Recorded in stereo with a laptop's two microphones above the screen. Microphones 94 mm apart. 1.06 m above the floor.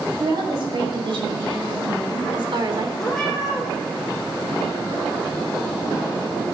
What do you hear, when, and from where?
0.2 s a woman speaking: 65° right (ahead or behind), 7 m; by 2.9 s 55° right (ahead or behind), 3.5 m
3.0 s a cat meowing: centre (ahead or behind), 5 m